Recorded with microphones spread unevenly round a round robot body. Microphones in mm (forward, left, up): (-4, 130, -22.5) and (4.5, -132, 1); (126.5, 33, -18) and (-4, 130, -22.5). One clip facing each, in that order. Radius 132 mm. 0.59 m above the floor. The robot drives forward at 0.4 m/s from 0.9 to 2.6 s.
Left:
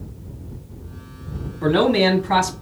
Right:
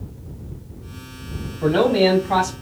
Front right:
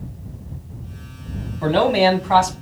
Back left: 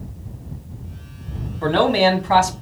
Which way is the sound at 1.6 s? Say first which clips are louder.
Right 1 dB, front right 1 dB; 40° left.